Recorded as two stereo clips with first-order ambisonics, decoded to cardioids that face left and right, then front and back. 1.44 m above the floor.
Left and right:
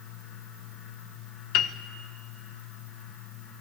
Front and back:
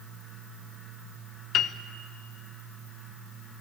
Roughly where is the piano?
Ahead left.